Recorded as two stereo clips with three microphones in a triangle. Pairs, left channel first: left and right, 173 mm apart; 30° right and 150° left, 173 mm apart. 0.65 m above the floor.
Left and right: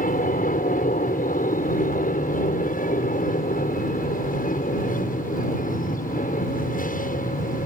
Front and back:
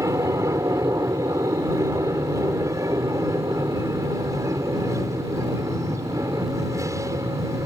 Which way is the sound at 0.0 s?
80° left.